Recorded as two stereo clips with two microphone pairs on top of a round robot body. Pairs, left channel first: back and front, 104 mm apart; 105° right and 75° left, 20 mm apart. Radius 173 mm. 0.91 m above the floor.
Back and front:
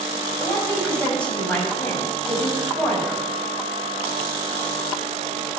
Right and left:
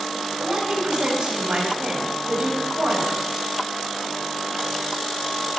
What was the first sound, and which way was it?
A woman speaking, 100° left.